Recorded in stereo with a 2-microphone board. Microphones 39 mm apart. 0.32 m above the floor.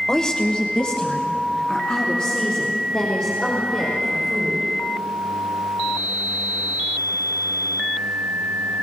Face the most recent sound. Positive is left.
turn(degrees=20)  # may be behind; listen again after turning